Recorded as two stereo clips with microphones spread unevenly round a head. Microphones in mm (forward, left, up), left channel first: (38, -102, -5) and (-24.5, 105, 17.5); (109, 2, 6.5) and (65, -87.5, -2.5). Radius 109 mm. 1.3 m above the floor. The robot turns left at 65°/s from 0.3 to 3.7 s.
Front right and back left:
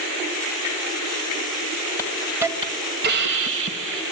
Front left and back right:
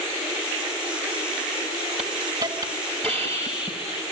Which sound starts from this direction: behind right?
A hiss, at 2.0 s.